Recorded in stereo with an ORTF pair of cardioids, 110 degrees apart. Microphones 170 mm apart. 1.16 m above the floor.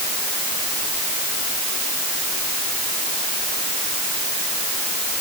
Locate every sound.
Only background noise.